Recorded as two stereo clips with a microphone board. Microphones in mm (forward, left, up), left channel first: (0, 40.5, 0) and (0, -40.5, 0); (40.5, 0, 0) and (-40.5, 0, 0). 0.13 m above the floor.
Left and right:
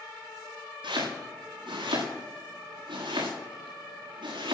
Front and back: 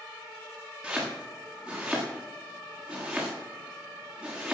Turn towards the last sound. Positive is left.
turn(degrees=-100)